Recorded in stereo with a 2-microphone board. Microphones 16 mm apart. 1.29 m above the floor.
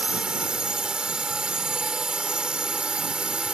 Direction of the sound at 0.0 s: 75° right (ahead or behind).